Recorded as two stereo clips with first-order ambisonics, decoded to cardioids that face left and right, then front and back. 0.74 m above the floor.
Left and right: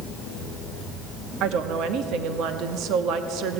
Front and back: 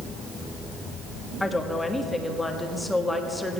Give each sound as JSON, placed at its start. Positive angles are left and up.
{"t": 1.4, "sound": "a woman speaking", "azimuth_deg": -85, "distance_m": 1.3}